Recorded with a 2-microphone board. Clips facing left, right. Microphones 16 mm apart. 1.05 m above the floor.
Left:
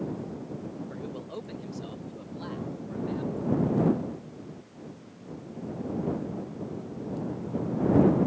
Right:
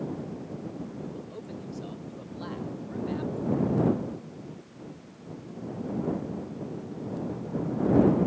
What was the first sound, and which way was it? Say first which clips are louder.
A man speaking: left 1 dB; 50° left (ahead or behind).